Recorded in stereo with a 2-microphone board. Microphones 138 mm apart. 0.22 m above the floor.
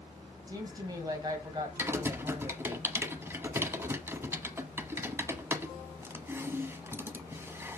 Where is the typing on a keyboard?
15° right (ahead or behind), 0.9 m.